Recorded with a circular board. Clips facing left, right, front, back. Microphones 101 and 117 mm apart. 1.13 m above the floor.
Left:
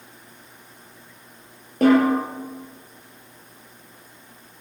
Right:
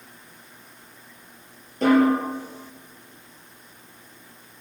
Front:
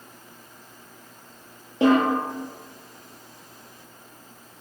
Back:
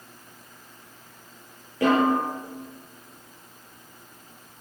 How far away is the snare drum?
About 5.5 m.